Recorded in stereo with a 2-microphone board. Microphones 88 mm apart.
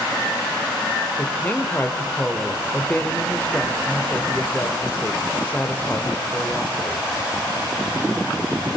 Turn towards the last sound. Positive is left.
turn(degrees=15)  # may be behind; listen again after turning